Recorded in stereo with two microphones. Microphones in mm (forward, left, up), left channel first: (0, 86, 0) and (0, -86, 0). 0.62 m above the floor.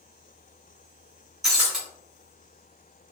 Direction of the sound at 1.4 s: Centre (ahead or behind).